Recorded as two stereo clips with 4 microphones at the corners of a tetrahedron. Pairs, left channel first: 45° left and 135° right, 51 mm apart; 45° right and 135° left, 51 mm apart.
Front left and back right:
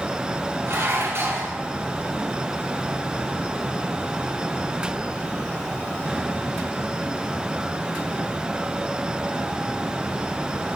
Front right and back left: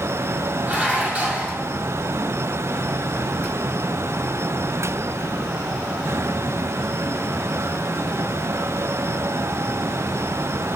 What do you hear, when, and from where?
0.7 s dishes clattering: 165° right, 3.5 m